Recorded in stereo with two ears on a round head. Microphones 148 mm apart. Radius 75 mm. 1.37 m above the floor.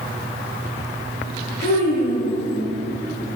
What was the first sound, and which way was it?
A child speaking, 60° left (ahead or behind).